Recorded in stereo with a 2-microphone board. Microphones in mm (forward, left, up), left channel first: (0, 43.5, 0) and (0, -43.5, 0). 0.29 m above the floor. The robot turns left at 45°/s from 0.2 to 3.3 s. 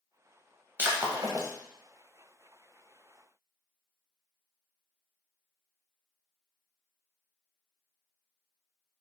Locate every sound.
0.8 s breaking glass: 25° right (ahead or behind), 0.7 m; by 1.5 s 45° right (ahead or behind), 0.7 m